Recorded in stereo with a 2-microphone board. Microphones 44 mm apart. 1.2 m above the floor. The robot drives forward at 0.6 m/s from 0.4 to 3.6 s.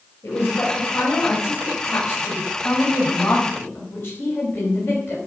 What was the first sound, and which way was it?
A woman speaking, 85° left.